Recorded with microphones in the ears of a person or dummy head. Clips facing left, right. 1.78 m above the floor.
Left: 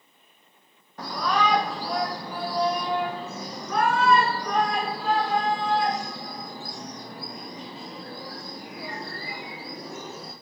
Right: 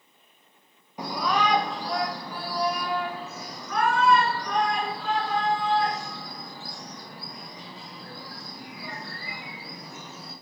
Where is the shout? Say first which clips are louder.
Left 1 dB; 10° right (ahead or behind), 1.4 m; by 10.3 s 50° left (ahead or behind), 7 m.